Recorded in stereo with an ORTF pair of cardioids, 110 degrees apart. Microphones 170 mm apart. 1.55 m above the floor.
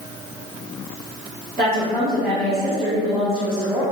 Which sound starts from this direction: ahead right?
A woman speaking, at 1.6 s.